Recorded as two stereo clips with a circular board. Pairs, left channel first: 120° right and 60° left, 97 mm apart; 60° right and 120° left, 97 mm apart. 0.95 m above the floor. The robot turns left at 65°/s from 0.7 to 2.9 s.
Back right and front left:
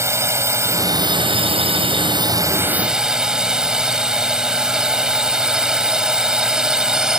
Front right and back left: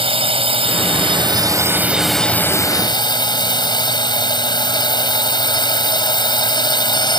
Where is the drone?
120° left; by 7.2 s 20° right.